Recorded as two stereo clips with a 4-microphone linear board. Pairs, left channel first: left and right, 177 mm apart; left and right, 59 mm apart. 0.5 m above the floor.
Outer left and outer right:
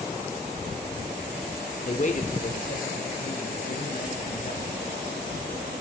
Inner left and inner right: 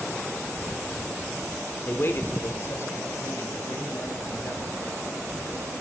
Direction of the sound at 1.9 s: 40° left (ahead or behind).